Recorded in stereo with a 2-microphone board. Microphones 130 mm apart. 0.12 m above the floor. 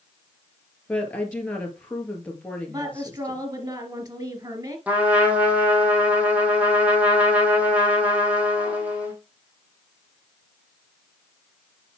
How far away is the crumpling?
I don't hear crumpling.